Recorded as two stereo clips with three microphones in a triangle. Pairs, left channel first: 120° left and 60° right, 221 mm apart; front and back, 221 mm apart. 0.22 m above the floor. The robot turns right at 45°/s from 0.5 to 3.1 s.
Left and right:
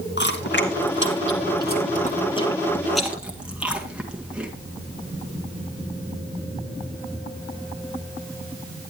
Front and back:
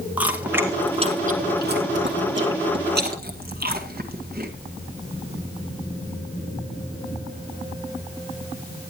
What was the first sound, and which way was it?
Chewing, 100° left.